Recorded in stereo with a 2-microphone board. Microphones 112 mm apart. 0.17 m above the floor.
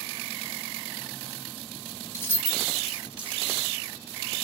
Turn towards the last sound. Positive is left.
turn(degrees=-25)  # may be behind; listen again after turning